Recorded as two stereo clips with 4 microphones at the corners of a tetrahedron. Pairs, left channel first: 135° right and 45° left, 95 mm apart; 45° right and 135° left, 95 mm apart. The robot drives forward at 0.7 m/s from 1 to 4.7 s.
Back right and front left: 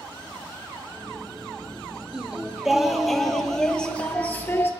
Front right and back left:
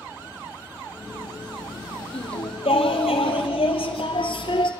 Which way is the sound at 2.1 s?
40° right.